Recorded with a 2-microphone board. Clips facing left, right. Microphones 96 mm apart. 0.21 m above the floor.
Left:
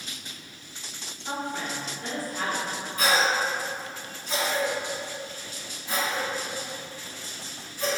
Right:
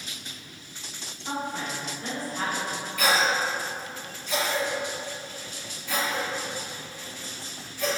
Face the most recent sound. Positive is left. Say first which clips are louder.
# even
turn(degrees=30)  # may be behind; listen again after turning